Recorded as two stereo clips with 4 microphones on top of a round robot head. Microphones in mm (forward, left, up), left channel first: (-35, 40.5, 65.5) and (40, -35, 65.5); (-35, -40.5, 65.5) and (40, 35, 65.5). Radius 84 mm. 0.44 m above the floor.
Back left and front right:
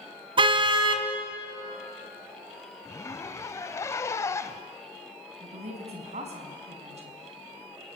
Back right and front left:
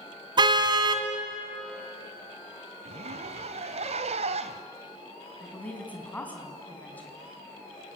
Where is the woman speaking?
60° right, 4.5 m.